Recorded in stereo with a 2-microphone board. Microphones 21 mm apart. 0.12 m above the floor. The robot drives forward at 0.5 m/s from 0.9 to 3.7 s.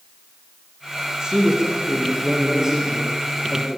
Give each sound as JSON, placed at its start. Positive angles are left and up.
{"t": 1.2, "sound": "a man speaking", "side_deg": -35, "distance_m": 6.5}